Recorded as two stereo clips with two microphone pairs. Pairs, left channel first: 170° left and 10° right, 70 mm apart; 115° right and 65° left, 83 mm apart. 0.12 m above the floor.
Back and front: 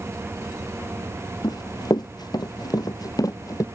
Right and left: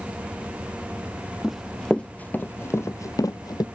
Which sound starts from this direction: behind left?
Running footsteps, at 1.4 s.